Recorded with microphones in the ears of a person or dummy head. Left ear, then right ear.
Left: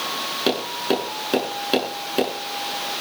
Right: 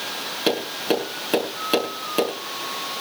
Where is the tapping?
5° right (ahead or behind), 7.5 m.